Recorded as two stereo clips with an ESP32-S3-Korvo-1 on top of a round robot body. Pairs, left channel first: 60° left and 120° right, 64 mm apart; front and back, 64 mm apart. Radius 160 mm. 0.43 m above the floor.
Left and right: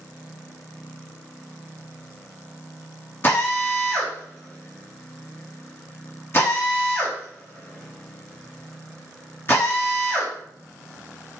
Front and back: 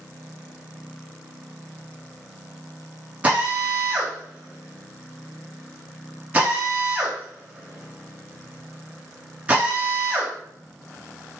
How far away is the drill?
About 5 m.